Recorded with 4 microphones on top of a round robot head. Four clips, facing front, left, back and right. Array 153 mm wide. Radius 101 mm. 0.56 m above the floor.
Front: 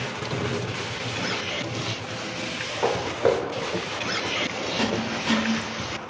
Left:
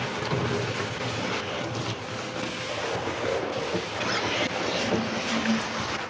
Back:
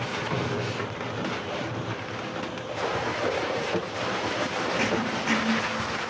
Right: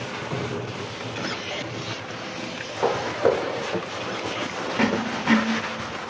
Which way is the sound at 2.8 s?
55° right.